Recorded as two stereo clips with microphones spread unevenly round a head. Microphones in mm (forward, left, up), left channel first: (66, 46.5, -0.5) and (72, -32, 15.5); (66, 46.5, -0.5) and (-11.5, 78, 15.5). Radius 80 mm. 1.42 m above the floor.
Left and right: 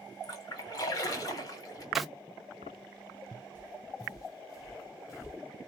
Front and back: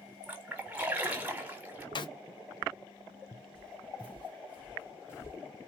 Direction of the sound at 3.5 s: 65° left.